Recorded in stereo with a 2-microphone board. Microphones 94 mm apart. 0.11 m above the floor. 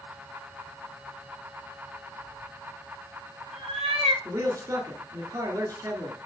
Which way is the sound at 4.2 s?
35° right (ahead or behind).